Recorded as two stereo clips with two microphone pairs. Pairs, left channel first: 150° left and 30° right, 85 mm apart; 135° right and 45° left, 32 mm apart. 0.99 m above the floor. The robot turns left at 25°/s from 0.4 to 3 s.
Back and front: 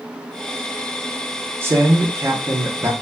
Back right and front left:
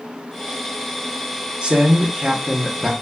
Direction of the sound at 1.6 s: 10° left.